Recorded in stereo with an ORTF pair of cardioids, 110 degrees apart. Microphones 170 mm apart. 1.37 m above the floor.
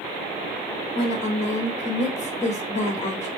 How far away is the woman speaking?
About 1.4 m.